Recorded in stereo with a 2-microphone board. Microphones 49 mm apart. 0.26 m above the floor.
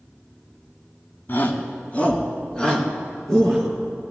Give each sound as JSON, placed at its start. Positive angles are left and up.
{"t": 1.3, "sound": "a shout", "side_deg": 45, "distance_m": 2.0}